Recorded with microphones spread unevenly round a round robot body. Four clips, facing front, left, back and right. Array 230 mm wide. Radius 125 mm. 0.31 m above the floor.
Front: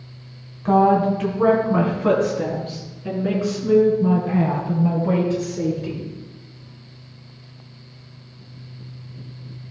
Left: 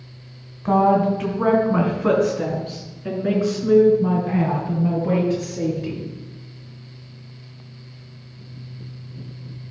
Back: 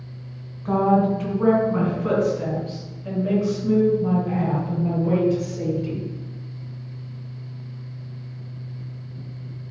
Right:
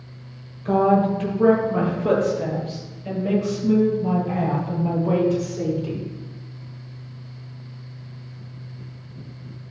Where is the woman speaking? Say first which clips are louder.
Left 1 dB, front 3 dB; 45° left, 2.5 m; by 6.0 s 55° left, 5.5 m.